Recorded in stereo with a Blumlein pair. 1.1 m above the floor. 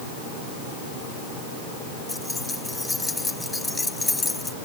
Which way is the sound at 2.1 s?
10° left.